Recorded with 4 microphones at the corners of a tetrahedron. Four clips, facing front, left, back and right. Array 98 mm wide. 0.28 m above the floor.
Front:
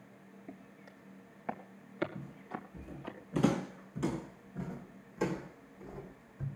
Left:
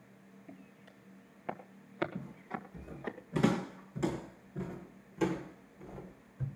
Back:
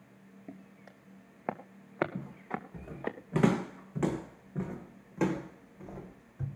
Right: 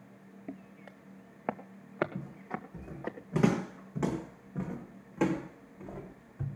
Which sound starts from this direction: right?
Footsteps, at 0.5 s.